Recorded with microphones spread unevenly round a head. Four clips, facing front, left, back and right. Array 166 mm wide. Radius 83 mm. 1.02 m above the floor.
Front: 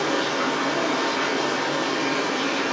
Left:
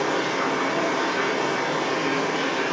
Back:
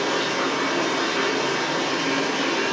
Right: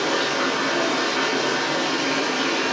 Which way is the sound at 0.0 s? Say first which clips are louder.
Right 1 dB, even; 130° right.